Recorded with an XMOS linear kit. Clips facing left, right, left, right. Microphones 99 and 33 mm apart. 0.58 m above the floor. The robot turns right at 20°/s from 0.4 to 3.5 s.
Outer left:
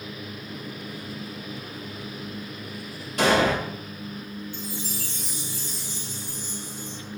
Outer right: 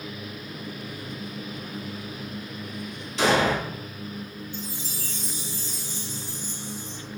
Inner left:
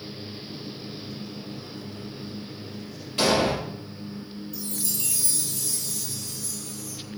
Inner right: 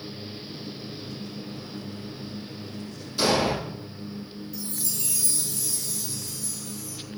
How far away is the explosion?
About 3.5 m.